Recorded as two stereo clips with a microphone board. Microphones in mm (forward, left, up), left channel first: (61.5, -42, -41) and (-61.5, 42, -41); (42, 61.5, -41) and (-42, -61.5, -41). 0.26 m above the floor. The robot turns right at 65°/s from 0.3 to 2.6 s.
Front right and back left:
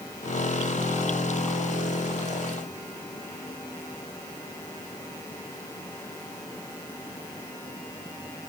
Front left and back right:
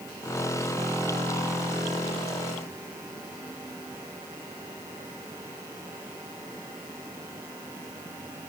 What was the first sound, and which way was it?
Only background noise.